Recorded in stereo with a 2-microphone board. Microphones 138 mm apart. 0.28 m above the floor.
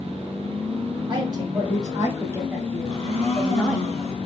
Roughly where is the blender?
Right.